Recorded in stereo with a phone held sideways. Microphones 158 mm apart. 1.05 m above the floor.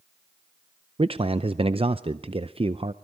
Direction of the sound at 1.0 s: 35° right (ahead or behind).